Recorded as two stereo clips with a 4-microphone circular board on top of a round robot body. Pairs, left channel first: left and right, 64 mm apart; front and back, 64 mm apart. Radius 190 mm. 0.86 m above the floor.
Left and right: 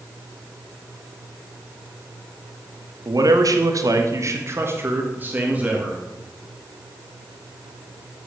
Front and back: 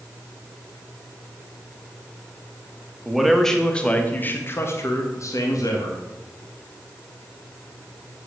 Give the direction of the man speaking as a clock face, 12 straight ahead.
3 o'clock.